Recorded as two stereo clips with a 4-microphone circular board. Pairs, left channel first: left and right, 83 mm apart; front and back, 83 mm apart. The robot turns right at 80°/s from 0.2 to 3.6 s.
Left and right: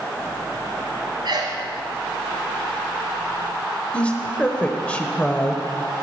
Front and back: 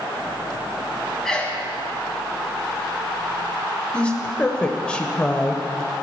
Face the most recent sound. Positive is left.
turn(degrees=50)